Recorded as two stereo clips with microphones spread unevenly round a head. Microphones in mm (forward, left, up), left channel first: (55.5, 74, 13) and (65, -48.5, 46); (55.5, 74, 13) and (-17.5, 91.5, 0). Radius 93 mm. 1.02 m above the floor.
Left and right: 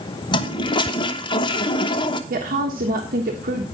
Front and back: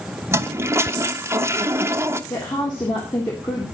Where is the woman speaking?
75° right, 1.4 m.